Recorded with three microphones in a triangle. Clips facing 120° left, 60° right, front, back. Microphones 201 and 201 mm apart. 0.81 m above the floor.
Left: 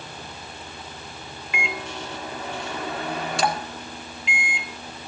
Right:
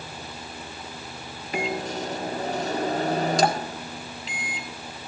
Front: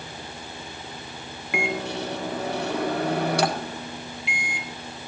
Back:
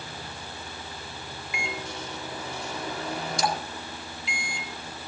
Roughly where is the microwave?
Ahead.